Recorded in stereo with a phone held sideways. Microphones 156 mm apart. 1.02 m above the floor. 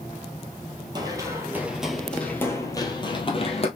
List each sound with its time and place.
0.9 s running footsteps: 25° right (ahead or behind), 1.1 m; by 3.7 s 40° left (ahead or behind), 1.3 m